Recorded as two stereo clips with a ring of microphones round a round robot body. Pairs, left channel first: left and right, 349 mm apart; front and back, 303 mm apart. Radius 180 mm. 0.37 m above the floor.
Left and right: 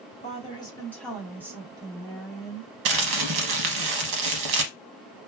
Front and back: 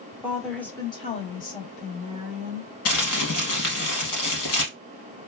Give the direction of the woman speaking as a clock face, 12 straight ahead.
8 o'clock.